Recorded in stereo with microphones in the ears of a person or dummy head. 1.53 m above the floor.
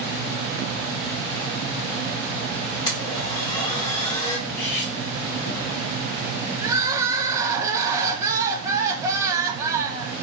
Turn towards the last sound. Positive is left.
turn(degrees=-15)  # may be behind; listen again after turning